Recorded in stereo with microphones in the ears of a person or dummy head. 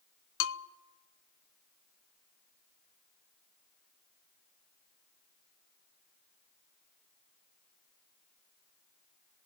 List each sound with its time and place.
0.4 s a bell: 75° left (ahead or behind), 0.7 m